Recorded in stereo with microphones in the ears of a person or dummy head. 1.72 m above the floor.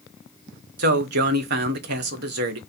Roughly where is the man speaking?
Right.